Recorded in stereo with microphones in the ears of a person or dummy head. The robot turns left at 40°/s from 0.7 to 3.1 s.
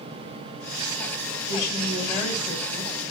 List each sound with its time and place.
1.5 s a woman speaking: 55° left, 7 m; by 3.0 s 5° right, 7 m